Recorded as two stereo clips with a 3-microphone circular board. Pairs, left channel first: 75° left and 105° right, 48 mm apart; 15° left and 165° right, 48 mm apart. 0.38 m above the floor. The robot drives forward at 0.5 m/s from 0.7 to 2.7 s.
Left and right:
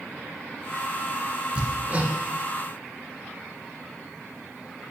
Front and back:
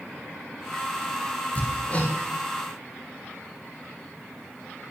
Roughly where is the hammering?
Ahead right.